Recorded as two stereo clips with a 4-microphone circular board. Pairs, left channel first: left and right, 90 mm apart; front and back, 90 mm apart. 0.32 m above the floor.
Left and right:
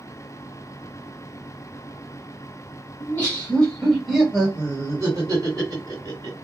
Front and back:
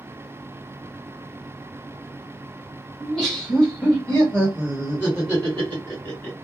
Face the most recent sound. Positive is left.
turn(degrees=-65)